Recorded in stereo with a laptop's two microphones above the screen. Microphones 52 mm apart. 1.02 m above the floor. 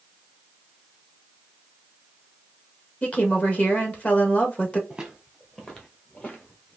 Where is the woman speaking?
25° left (ahead or behind), 1.2 m.